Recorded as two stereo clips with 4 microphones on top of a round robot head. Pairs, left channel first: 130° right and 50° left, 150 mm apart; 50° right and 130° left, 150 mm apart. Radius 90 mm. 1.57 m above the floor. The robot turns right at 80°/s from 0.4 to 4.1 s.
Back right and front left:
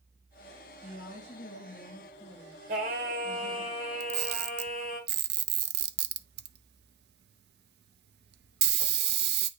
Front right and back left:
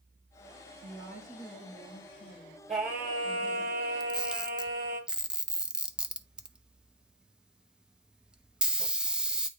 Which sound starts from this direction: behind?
A woman speaking, at 0.8 s.